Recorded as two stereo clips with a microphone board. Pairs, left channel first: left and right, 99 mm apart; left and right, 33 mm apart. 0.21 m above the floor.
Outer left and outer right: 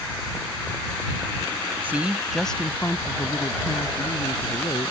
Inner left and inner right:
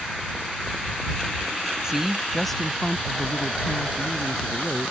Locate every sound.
1.8 s a woman speaking: 20° right (ahead or behind); by 4.9 s 60° left (ahead or behind)